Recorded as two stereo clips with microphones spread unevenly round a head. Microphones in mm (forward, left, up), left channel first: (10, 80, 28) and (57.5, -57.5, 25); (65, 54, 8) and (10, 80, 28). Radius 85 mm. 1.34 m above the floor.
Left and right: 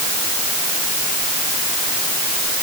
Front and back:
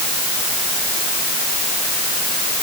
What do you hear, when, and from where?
Only background noise.